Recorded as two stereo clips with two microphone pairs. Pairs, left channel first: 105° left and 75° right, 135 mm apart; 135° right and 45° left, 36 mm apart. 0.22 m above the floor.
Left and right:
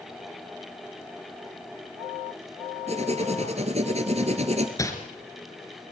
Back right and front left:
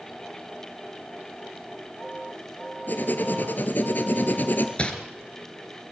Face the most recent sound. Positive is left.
turn(degrees=170)